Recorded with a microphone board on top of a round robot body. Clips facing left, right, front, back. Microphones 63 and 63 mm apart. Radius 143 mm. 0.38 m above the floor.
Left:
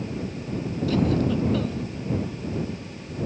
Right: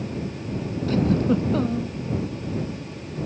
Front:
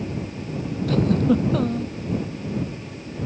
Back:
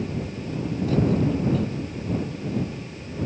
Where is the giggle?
30° right.